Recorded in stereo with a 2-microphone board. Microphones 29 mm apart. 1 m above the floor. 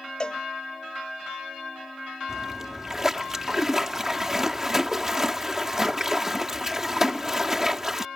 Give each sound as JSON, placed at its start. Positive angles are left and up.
{"t": 0.2, "sound": "a cowbell", "side_deg": 30}
{"t": 2.3, "sound": "a splash", "side_deg": -20}